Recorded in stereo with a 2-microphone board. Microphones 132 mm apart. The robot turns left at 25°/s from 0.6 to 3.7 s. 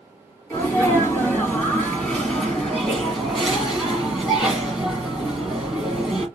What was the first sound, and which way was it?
A sneeze, 15° left (ahead or behind).